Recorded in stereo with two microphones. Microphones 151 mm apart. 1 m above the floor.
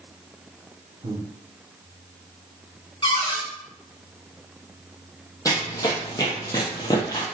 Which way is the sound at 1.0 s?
40° right (ahead or behind).